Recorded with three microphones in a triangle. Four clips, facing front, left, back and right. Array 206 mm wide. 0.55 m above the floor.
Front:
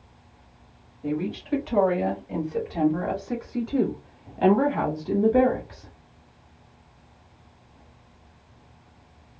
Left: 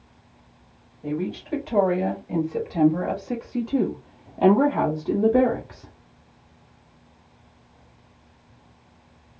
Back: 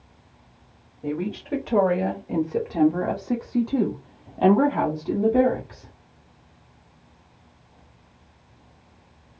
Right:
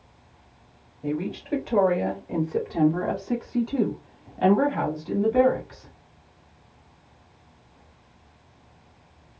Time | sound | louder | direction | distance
1.0 | a woman speaking | left 1 dB, even | 145° right | 2.0 m